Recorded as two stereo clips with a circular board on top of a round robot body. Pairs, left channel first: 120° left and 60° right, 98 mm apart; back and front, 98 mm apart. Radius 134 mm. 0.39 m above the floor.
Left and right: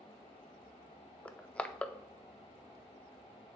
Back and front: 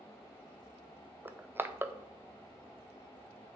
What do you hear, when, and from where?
1.2 s crushing: 50° left, 0.8 m